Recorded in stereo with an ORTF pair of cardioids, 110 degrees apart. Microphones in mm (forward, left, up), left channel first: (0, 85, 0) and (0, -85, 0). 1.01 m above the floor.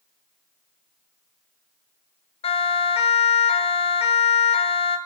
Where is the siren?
35° left, 4.5 m.